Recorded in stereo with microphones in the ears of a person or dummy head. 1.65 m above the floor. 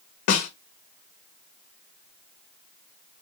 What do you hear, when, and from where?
0.3 s a snare drum: 50° left (ahead or behind), 0.6 m